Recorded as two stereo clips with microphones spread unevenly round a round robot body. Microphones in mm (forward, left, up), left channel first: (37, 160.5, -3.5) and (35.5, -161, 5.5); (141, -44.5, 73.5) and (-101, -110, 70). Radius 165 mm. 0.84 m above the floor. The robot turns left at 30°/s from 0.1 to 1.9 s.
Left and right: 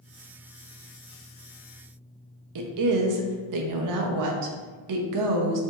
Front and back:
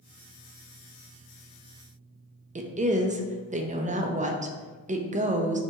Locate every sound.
2.5 s a woman speaking: 105° right, 0.6 m